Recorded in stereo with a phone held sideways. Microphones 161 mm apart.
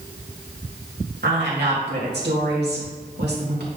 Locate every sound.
1.2 s a woman speaking: 80° right, 2.5 m